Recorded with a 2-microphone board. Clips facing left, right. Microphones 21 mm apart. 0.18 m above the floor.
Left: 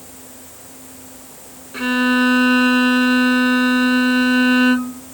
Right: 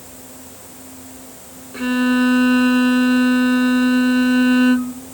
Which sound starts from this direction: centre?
A violin, at 1.7 s.